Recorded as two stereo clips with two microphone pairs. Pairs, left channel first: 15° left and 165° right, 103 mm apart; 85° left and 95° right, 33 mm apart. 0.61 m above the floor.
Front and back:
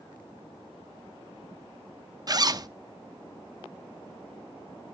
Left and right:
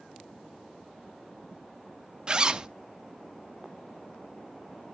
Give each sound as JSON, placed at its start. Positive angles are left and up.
{"t": 2.3, "sound": "a zipper", "azimuth_deg": -140, "distance_m": 0.6}